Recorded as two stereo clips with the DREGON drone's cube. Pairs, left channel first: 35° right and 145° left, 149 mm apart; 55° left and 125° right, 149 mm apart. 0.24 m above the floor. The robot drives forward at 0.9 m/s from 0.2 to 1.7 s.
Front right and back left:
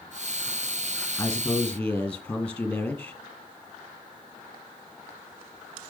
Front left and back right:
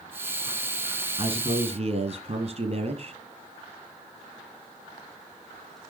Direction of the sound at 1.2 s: 95° right.